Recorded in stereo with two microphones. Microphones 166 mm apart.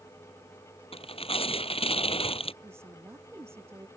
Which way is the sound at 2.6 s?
15° right (ahead or behind).